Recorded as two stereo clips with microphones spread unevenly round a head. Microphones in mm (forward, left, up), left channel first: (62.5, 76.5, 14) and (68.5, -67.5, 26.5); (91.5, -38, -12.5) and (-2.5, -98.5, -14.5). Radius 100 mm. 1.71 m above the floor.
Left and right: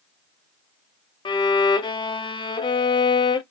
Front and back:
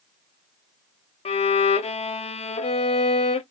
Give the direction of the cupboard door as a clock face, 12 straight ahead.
No cupboard door in this recording.